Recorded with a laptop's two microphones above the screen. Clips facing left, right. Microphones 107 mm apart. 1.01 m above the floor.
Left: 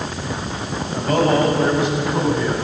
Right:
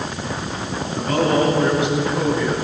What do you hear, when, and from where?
0.9 s a man speaking: 45° left (ahead or behind), 7 m; by 2.5 s 40° left (ahead or behind), 9.5 m